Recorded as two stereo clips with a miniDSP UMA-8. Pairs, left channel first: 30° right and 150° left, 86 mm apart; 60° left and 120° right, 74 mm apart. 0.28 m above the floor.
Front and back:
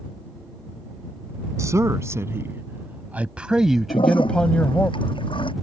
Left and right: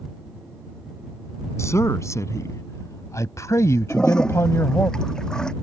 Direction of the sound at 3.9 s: 20° right.